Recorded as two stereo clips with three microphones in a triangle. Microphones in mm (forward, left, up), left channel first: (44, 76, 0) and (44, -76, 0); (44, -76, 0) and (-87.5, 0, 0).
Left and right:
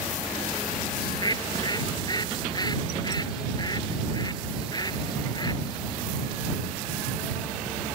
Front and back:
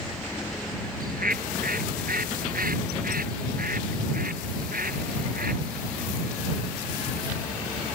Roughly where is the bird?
Behind left.